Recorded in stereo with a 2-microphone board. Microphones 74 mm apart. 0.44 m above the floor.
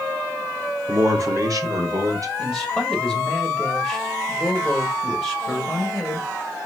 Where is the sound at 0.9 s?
40° right (ahead or behind), 1.0 m; by 2.3 s 50° right (ahead or behind), 2 m.